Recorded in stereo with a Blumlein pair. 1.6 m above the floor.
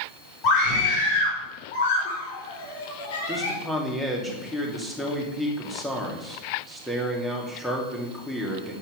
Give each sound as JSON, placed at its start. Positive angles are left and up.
{"t": 0.4, "sound": "a scream", "azimuth_deg": 40, "distance_m": 4.5}
{"t": 3.3, "sound": "a man speaking", "azimuth_deg": 5, "distance_m": 3.0}